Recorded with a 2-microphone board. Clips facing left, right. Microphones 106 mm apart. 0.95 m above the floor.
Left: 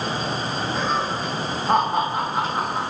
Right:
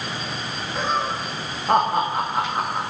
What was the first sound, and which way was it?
Laughter, centre (ahead or behind).